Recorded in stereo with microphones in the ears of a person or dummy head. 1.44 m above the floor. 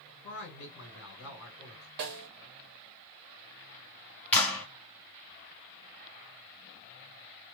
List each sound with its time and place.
0.2 s a man speaking: 70° left (ahead or behind), 1.6 m
2.0 s a snare drum: 50° right (ahead or behind), 0.6 m
4.3 s a clap: 10° left (ahead or behind), 1.3 m